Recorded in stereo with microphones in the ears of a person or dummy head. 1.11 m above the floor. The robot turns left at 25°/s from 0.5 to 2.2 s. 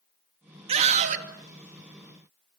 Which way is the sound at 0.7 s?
35° right (ahead or behind).